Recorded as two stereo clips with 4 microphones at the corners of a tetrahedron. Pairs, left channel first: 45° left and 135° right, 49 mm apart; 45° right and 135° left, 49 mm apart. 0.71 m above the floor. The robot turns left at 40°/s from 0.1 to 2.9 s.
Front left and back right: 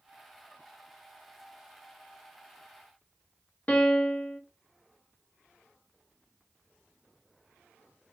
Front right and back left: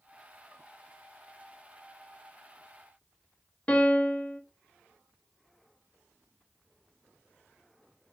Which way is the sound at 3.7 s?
5° left.